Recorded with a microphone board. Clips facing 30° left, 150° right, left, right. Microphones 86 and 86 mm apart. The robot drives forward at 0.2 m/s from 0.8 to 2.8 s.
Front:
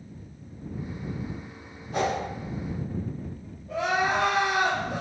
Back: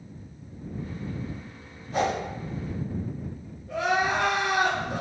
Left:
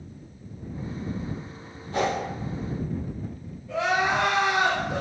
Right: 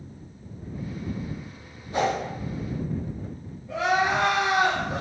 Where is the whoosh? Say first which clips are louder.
Back 1 dB, right 1 dB; 60° right, 1.5 m.